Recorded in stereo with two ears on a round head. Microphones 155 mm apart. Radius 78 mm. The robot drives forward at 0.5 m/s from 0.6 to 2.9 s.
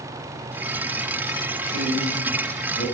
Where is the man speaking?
75° left (ahead or behind), 6.5 m; by 2.9 s 70° left (ahead or behind), 6.5 m.